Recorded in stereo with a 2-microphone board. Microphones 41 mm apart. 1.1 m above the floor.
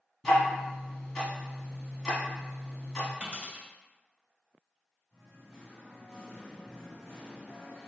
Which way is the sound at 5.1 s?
10° left (ahead or behind).